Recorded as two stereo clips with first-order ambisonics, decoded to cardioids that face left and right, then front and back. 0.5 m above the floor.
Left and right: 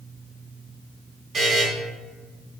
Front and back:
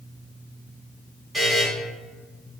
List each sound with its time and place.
1.3 s a buzzer: 140° right, 1.3 m